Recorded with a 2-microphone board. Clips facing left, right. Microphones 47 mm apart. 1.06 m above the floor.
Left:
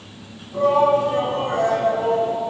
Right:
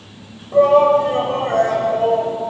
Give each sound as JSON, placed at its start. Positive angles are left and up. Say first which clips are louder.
{"t": 0.5, "sound": "a shout", "louder": "right 5 dB", "side_deg": -65, "distance_m": 6.0}